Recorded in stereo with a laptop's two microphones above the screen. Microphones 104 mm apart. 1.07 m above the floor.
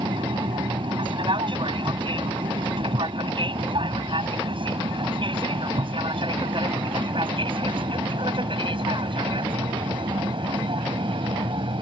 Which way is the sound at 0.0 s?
55° right (ahead or behind).